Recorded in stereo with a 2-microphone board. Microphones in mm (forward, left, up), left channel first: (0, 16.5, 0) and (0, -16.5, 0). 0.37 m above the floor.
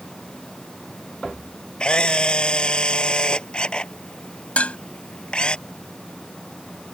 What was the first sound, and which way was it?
A camera shutter, 30° left (ahead or behind).